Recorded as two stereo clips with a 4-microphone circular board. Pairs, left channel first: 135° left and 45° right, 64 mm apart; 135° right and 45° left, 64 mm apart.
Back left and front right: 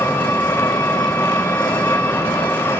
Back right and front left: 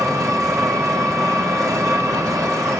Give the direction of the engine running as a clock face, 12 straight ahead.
10 o'clock.